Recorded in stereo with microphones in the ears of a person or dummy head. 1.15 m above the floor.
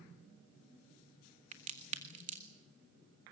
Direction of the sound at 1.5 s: 40° right (ahead or behind).